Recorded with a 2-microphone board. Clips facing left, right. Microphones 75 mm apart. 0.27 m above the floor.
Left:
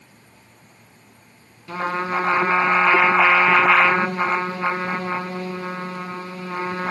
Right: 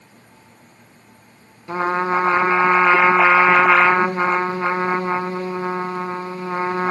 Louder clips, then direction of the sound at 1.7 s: Right 4 dB; 30° right (ahead or behind).